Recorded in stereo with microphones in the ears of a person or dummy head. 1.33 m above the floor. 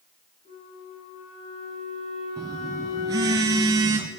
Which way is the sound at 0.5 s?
35° left (ahead or behind).